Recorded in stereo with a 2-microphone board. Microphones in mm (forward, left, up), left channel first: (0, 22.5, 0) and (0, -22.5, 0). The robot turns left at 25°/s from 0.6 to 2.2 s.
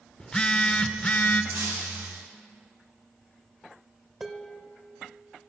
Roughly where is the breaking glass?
Right.